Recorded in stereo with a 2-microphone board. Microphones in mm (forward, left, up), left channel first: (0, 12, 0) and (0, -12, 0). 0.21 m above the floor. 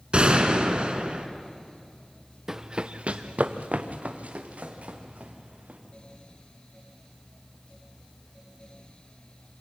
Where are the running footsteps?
20° right (ahead or behind), 1.1 m; by 5.8 s 75° right (ahead or behind), 5 m.